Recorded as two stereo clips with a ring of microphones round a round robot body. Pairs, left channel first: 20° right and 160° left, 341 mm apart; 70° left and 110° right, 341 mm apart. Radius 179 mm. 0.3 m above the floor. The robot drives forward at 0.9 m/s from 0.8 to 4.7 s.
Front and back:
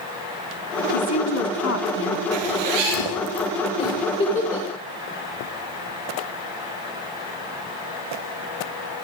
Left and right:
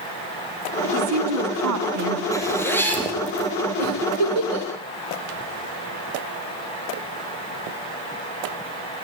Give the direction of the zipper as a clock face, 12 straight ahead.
7 o'clock.